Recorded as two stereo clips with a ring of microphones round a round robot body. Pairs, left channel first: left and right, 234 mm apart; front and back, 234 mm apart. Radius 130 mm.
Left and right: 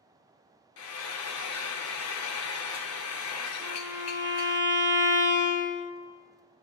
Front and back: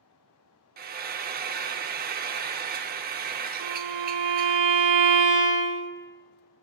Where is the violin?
170° right, 1.1 m.